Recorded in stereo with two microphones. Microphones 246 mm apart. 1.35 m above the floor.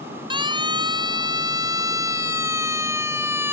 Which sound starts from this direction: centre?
A siren, at 0.3 s.